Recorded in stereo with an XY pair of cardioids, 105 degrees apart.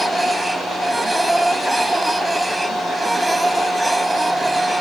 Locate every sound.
0.0 s a machine running: 10° right